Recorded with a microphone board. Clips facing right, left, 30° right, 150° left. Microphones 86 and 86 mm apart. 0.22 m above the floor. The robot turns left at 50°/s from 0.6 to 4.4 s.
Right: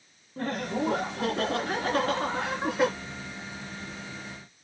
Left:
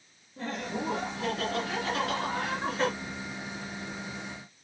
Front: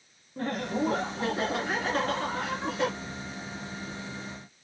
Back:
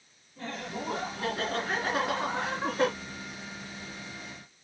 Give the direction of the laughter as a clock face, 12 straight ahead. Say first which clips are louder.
Right 4 dB, front 8 dB; 2 o'clock.